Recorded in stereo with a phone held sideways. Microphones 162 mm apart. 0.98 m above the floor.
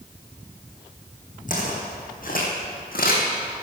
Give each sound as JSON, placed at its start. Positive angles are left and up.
{"t": 1.5, "sound": "footsteps", "side_deg": 55, "distance_m": 3.0}